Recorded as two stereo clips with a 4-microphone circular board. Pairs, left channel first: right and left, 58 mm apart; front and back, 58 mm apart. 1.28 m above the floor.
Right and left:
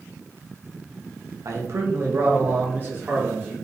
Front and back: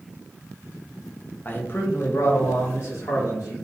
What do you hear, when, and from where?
1.4 s a man speaking: 60° left, 0.7 m; by 3.5 s 30° left, 1.9 m